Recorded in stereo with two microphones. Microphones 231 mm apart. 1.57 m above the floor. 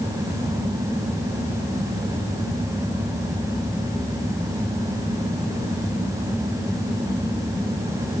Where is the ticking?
I don't hear ticking.